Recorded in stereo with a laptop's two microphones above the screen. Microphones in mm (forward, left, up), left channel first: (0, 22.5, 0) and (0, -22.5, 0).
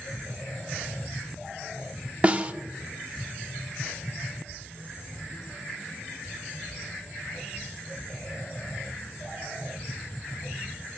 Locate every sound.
2.2 s a snare drum: 25° right (ahead or behind), 0.8 m